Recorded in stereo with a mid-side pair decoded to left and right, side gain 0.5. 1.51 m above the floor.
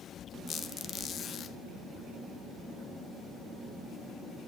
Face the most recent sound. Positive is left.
turn(degrees=55)